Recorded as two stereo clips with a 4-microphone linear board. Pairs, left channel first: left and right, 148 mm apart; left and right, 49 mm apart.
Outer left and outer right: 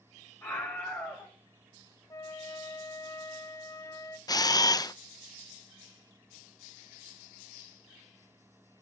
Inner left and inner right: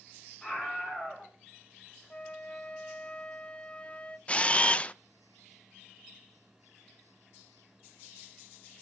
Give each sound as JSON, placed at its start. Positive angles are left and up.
{"t": 0.4, "sound": "a scream", "side_deg": 20, "distance_m": 2.5}
{"t": 2.1, "sound": "a flute", "side_deg": 25, "distance_m": 0.6}
{"t": 4.3, "sound": "a camera shutter", "side_deg": 25, "distance_m": 0.5}